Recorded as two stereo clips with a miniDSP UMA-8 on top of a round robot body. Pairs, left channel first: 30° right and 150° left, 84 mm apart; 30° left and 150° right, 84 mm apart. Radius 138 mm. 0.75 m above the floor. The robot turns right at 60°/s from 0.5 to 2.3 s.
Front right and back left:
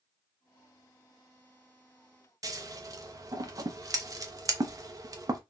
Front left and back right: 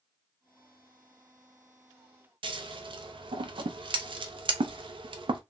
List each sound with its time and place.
2.4 s scissors: 165° right, 0.5 m